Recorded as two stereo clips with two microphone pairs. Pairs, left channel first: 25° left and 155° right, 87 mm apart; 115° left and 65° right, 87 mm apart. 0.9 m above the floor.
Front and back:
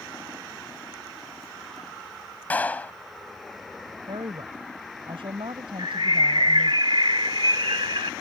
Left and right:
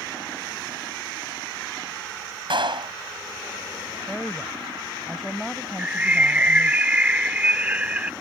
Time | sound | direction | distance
2.5 | a clap | 45° right | ?
4.1 | a woman speaking | 155° right | ?
5.8 | a bird | 140° right | ?